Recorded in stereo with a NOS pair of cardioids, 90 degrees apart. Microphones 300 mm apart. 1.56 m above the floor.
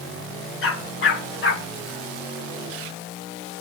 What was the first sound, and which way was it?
A dog barking, 50° left.